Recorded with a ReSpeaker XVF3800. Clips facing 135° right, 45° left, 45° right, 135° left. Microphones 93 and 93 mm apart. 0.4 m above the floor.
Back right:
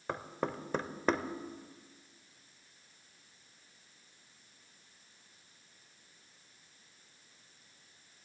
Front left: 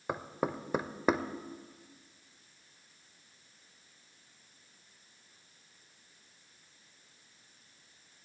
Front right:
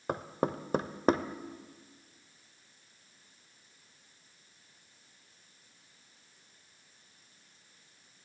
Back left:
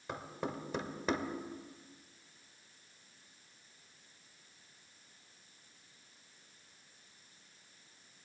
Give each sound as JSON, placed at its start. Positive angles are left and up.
{"t": 0.1, "sound": "knocking", "azimuth_deg": -30, "distance_m": 0.8}